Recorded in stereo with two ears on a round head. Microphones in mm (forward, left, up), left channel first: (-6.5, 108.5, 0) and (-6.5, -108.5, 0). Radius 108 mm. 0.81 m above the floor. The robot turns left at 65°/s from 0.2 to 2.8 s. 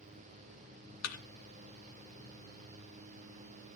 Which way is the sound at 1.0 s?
75° left (ahead or behind).